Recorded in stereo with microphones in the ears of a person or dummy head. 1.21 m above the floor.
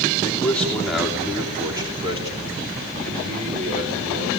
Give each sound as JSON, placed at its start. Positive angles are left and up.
{"t": 0.2, "sound": "a man speaking", "side_deg": 10, "distance_m": 3.5}